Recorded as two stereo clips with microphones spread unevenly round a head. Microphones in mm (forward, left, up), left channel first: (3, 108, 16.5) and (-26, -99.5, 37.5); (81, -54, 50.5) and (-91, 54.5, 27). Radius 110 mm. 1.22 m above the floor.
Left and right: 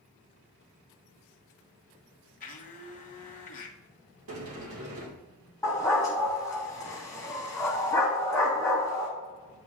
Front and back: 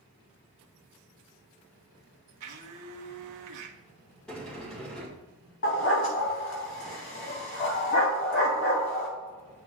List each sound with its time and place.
2.4 s a blender: 140° left, 1.2 m
4.3 s a sliding door: 115° right, 1.8 m
5.6 s a dog barking: 5° left, 2.5 m